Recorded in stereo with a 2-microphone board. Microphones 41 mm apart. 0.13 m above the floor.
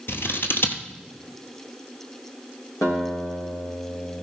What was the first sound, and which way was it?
Scissors, 60° left (ahead or behind).